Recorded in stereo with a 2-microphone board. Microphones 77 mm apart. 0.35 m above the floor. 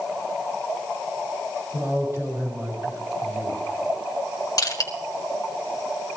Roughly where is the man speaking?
Right.